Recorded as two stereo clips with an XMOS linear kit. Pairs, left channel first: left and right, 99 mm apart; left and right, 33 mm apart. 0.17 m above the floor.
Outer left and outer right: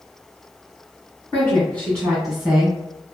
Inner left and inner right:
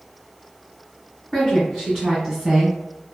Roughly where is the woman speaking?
Left.